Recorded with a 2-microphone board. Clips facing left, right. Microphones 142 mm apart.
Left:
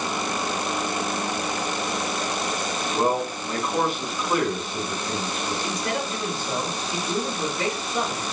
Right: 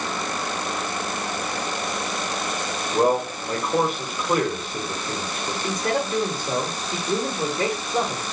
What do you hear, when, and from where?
2.9 s a man speaking: 50° right (ahead or behind), 1.6 m
5.6 s a man speaking: 45° right (ahead or behind), 1.5 m